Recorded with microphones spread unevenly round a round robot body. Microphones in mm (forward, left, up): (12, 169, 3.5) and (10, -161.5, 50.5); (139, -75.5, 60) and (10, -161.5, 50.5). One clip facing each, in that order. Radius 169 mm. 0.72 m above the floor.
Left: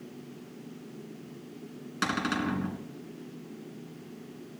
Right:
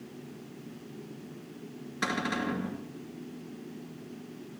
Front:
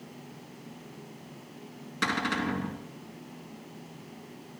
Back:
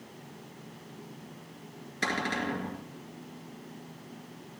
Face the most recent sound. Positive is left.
turn(degrees=50)